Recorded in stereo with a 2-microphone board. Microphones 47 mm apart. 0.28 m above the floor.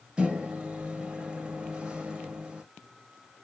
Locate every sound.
0.2 s a microwave: 25° right (ahead or behind), 0.7 m